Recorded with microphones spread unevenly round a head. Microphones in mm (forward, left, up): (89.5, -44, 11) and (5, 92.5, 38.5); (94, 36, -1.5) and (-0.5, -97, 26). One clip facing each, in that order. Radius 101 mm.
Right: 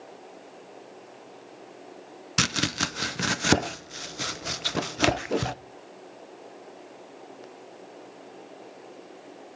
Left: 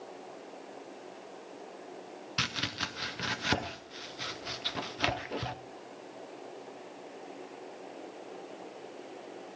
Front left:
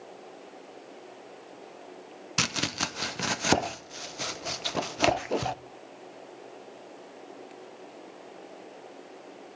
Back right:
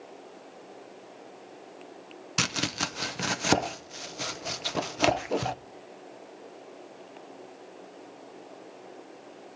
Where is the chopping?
50° right, 0.5 m.